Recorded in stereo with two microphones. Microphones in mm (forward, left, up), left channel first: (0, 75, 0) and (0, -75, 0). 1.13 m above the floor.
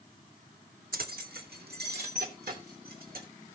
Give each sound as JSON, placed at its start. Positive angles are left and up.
{"t": 0.9, "sound": "keys jangling", "side_deg": -70, "distance_m": 1.0}